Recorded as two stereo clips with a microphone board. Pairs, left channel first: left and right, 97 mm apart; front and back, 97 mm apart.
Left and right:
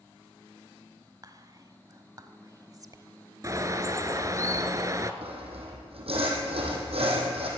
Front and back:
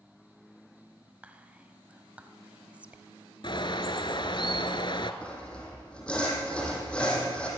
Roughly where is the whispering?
Right.